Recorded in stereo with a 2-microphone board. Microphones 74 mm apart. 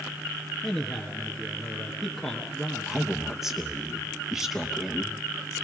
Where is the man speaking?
5° left (ahead or behind), 1.5 m.